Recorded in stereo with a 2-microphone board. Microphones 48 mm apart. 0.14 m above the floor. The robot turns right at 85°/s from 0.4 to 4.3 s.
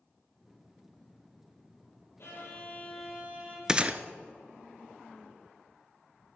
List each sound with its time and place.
2.2 s a violin: 115° left, 4.5 m; by 3.6 s 130° right, 4.5 m
3.7 s a gunshot: 15° right (ahead or behind), 0.5 m; by 4.0 s 35° right (ahead or behind), 0.5 m